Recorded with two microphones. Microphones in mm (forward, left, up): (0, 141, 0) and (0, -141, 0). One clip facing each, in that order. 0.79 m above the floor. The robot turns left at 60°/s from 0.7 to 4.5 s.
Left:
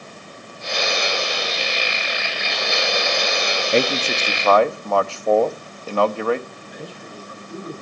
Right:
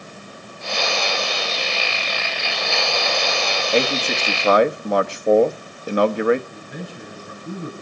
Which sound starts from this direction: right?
A man speaking, at 6.5 s.